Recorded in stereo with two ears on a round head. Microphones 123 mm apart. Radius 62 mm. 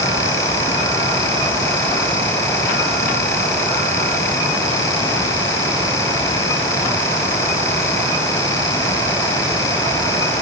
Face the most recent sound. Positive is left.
No sound to turn to.